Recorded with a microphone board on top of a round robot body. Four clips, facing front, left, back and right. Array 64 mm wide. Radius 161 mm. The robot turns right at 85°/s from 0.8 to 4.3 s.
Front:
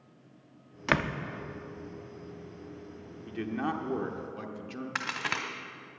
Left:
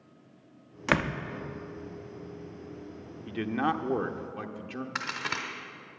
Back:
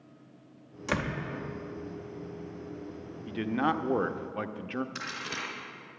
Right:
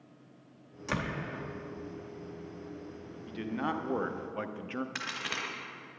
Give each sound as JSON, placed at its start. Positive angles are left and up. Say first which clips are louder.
{"t": 0.9, "sound": "a door slam", "louder": "left 7 dB, front 3 dB", "azimuth_deg": 45, "distance_m": 0.9}
{"t": 3.3, "sound": "a man speaking", "louder": "left 5 dB, back 4 dB", "azimuth_deg": 110, "distance_m": 1.0}
{"t": 5.0, "sound": "a crack", "louder": "left 4 dB, front 4 dB", "azimuth_deg": 15, "distance_m": 1.0}